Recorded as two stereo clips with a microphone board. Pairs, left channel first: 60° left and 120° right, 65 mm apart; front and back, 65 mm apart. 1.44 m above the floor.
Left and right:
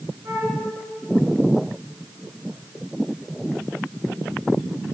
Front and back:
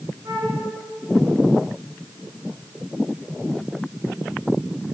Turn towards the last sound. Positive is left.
turn(degrees=-165)